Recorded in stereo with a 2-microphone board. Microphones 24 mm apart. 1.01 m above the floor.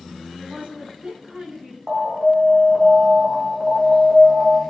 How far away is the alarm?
About 2.5 m.